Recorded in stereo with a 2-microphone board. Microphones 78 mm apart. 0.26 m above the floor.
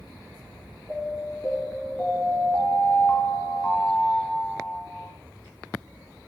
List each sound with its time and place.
0.9 s an alarm: 15° left (ahead or behind), 4 m